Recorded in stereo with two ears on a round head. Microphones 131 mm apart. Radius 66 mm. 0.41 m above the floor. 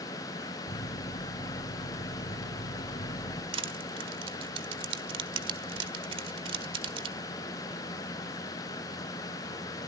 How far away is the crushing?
About 1.4 m.